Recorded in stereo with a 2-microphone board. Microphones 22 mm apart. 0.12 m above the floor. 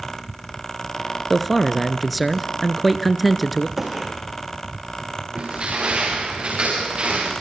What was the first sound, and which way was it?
A man speaking, centre (ahead or behind).